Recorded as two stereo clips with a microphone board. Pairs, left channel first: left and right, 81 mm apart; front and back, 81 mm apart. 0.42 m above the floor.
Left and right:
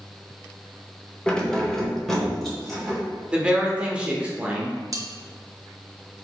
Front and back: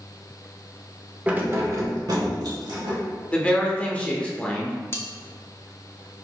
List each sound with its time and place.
1.3 s keys jangling: 140° left, 0.6 m; by 3.0 s straight behind, 1.7 m
3.3 s a woman speaking: 40° right, 0.8 m
4.9 s cutlery clinking: 55° right, 0.6 m